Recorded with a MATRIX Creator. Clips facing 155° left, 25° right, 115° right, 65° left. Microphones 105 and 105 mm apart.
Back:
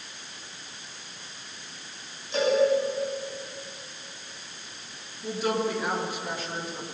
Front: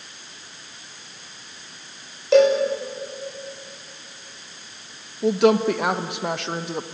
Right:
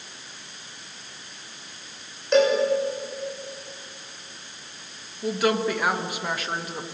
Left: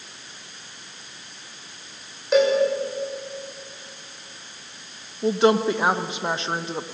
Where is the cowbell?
20° right, 7 m.